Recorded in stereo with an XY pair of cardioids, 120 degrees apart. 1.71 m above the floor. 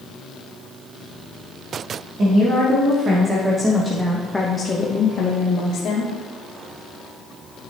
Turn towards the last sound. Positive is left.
turn(degrees=65)